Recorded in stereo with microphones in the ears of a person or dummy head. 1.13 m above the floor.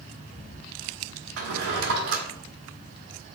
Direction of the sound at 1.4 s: 70° right (ahead or behind).